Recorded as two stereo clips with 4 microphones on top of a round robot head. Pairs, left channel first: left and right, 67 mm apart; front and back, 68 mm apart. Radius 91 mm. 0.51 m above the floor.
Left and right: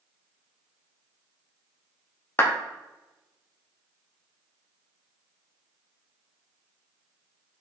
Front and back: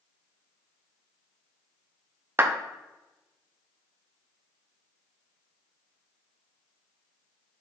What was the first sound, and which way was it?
A clap, 135° left.